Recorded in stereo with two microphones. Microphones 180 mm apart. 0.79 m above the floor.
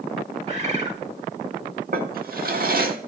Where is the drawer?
60° right (ahead or behind), 1.0 m.